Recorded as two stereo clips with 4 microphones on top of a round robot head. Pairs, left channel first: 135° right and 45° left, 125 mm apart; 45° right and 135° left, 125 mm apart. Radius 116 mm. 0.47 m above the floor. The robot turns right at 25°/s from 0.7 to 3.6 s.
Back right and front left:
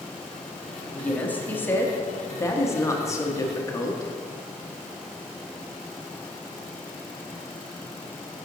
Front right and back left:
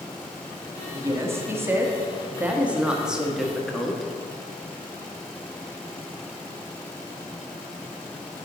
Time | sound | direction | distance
0.9 | a woman speaking | 160° left | 1.0 m